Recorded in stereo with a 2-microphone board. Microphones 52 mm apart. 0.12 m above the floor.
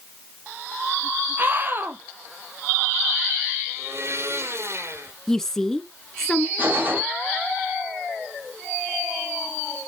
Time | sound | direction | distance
1.4 | a scream | 40° right (ahead or behind) | 3 m
3.7 | a blender | 55° right (ahead or behind) | 3.5 m
5.3 | a woman speaking | 10° left (ahead or behind) | 1.2 m
6.6 | a gunshot | 35° right (ahead or behind) | 6 m